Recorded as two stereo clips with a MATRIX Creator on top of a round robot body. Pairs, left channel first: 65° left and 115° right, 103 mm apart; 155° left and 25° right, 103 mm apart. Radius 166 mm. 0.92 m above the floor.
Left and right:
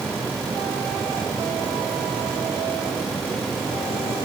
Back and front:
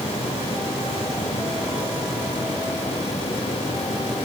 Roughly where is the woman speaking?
I don't hear a woman speaking.